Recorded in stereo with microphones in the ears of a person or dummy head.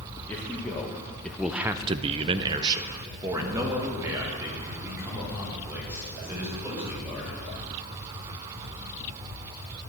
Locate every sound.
0.3 s a man speaking: 10° left (ahead or behind), 1.7 m; by 7.4 s 15° right (ahead or behind), 6 m